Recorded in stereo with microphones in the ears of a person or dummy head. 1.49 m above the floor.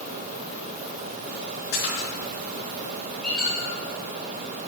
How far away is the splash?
About 4 m.